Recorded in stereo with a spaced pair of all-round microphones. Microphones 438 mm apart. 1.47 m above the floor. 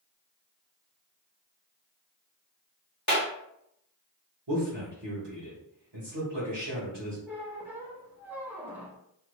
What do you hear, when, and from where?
3.1 s a clap: 40° left (ahead or behind), 1.5 m
4.5 s a man speaking: 65° right (ahead or behind), 1.2 m
7.3 s a squeak: 5° right (ahead or behind), 0.7 m